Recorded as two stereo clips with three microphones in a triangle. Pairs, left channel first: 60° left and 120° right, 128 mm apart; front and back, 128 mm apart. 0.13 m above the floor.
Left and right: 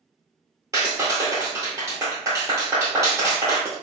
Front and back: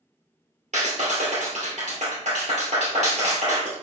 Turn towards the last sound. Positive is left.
turn(degrees=175)